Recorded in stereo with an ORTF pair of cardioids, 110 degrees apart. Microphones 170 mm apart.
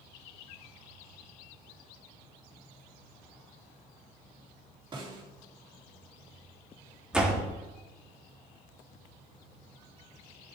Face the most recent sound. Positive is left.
turn(degrees=-5)